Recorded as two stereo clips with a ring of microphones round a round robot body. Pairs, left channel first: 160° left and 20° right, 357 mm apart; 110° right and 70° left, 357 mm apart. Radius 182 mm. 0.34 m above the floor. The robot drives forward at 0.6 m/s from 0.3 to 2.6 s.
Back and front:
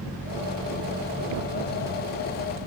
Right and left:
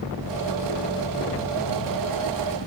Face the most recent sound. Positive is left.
No sound to turn to.